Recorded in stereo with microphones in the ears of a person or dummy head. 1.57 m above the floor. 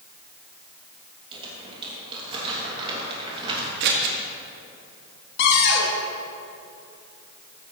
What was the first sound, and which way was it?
Crumpling, 30° right (ahead or behind).